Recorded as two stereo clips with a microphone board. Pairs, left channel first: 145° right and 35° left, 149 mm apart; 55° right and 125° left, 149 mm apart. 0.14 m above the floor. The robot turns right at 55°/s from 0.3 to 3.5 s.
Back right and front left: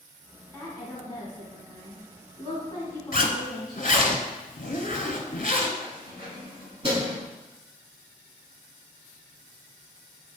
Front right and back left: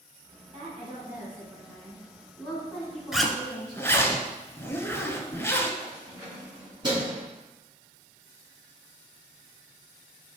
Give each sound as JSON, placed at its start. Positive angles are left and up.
{"t": 0.5, "sound": "a woman speaking", "azimuth_deg": 135, "distance_m": 1.7}
{"t": 3.1, "sound": "a zipper", "azimuth_deg": -150, "distance_m": 0.6}
{"t": 5.8, "sound": "keys jangling", "azimuth_deg": 75, "distance_m": 1.7}